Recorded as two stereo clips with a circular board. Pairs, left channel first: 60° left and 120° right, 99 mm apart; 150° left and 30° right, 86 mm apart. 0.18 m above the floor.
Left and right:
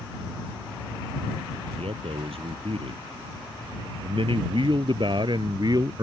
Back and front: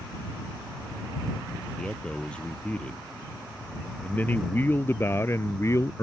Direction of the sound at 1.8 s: 130° right.